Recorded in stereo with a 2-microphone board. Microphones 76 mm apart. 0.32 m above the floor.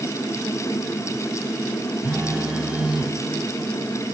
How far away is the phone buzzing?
About 1.9 m.